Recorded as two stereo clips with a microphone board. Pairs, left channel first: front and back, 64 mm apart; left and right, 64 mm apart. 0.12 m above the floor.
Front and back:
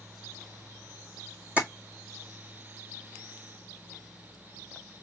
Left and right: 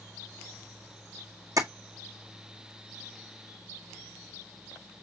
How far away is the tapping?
About 1.7 m.